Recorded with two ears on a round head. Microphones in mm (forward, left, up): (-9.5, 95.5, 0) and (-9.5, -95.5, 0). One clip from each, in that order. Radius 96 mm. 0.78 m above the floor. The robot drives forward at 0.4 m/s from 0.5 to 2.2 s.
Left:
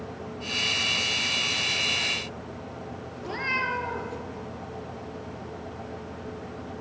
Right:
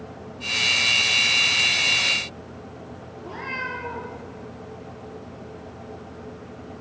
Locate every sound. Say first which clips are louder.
3.2 s a cat meowing: left 3 dB; 40° left (ahead or behind), 2 m